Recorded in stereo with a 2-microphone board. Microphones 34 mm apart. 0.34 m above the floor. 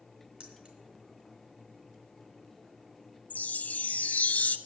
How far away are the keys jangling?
About 3 m.